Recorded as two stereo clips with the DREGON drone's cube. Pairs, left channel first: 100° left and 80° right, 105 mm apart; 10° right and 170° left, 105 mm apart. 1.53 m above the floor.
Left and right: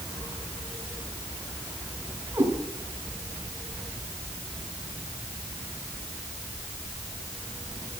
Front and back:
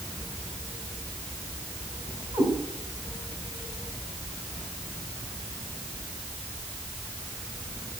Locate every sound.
2.3 s a cat meowing: 145° right, 5.5 m